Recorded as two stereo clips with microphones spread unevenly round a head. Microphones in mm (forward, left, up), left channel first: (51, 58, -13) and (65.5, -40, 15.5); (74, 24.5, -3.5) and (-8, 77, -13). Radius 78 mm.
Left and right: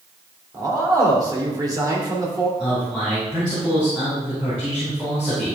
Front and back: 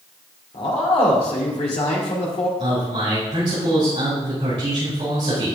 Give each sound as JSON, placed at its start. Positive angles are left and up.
{"t": 0.5, "sound": "a man speaking", "azimuth_deg": -30, "distance_m": 2.5}
{"t": 2.6, "sound": "a man speaking", "azimuth_deg": -170, "distance_m": 4.5}